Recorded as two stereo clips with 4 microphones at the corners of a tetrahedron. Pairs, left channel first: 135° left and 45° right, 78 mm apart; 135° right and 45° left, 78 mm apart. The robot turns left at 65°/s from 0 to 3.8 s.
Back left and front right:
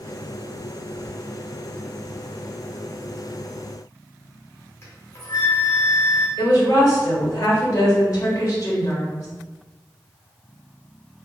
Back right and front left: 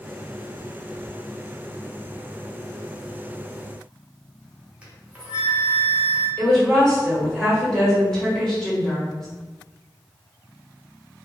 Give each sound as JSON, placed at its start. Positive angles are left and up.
{"t": 4.8, "sound": "a flute", "azimuth_deg": 110, "distance_m": 0.7}
{"t": 6.4, "sound": "a woman speaking", "azimuth_deg": 145, "distance_m": 1.3}